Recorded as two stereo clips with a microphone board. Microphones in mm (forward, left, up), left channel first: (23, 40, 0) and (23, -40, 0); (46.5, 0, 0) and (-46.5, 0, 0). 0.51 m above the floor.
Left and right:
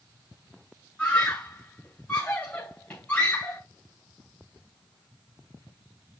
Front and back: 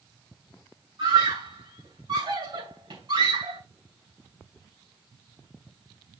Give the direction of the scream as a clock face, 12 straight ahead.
7 o'clock.